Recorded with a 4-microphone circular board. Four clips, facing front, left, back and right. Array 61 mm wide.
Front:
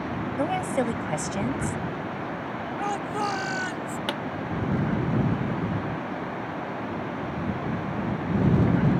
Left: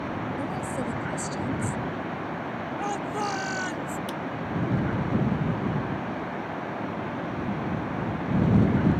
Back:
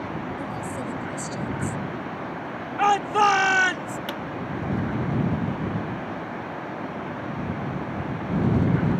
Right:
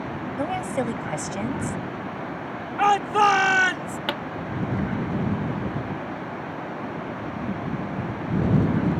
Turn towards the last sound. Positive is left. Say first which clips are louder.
# right 4 dB, front 2 dB
turn(degrees=-80)